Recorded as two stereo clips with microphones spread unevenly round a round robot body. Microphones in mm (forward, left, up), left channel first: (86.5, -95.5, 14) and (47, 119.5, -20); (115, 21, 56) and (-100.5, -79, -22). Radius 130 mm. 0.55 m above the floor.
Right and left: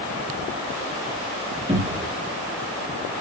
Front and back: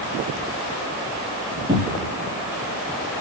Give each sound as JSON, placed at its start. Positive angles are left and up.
{"t": 1.7, "sound": "a cupboard door", "azimuth_deg": 155, "distance_m": 1.2}